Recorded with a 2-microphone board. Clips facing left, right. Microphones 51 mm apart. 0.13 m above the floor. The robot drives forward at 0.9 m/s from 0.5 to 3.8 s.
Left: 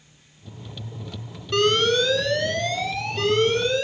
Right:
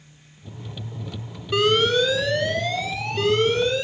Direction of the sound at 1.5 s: 10° right (ahead or behind).